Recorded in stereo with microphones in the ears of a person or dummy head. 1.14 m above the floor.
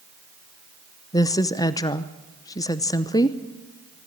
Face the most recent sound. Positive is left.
turn(degrees=10)  # may be behind; listen again after turning